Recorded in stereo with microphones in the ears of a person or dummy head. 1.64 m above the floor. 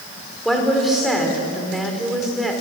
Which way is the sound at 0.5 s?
Centre (ahead or behind).